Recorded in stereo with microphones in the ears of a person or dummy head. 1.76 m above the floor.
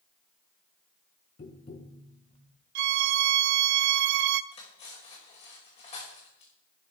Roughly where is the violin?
Right.